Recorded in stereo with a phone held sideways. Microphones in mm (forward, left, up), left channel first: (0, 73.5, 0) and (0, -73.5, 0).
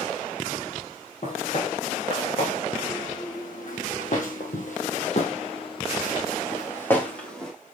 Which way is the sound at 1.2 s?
55° left (ahead or behind).